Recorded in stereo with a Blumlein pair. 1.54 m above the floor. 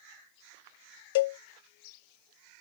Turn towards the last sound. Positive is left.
turn(degrees=55)